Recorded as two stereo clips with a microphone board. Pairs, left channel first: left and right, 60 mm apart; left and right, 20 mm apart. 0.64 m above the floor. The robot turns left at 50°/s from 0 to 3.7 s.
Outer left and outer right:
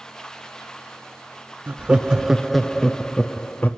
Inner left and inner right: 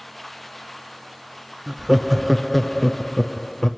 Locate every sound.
1.7 s laughter: 140° right, 0.7 m; by 3.7 s 120° left, 0.7 m